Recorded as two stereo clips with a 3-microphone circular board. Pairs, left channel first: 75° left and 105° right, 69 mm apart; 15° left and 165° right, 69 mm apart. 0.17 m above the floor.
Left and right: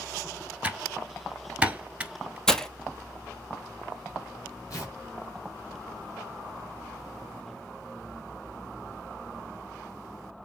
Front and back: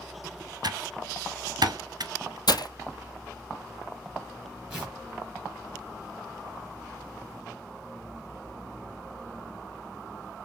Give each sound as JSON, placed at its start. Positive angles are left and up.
{"t": 0.6, "sound": "typing on a keyboard", "azimuth_deg": 180, "distance_m": 0.7}
{"t": 2.5, "sound": "breaking glass", "azimuth_deg": -5, "distance_m": 0.6}
{"t": 4.7, "sound": "tearing paper", "azimuth_deg": 125, "distance_m": 4.5}